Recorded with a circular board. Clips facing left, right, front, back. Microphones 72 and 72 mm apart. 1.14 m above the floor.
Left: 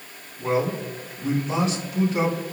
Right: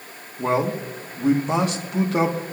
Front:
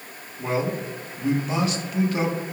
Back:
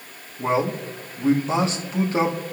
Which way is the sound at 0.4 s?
120° right.